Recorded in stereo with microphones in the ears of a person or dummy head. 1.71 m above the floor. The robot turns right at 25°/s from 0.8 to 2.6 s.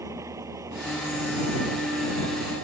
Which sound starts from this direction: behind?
An engine running, at 0.0 s.